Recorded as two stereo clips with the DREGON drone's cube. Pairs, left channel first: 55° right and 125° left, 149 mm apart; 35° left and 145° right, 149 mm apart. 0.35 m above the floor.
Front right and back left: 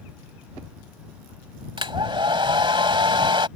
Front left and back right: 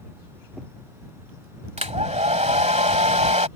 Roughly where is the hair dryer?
Behind.